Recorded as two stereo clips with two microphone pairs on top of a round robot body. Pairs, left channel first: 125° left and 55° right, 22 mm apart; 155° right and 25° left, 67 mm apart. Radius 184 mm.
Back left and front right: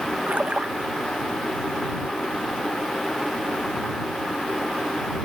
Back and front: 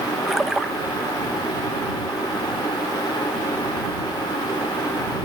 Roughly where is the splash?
Ahead right.